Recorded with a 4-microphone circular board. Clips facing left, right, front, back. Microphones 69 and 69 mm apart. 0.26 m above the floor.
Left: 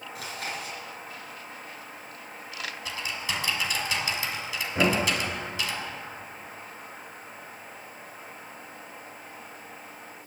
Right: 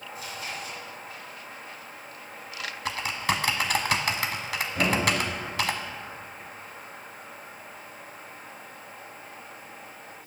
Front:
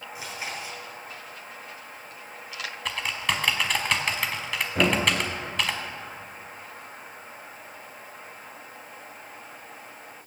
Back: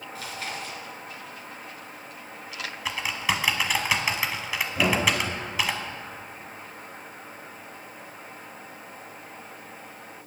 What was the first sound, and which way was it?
Chewing, 70° left.